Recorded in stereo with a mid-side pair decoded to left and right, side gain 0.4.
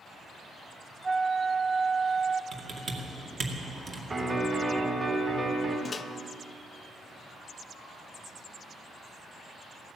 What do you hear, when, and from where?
1.0 s a flute: 40° right, 0.5 m
2.5 s typing on a keyboard: 50° right, 2 m
4.1 s a piano: 40° right, 5 m
5.8 s a microwave: 40° left, 0.6 m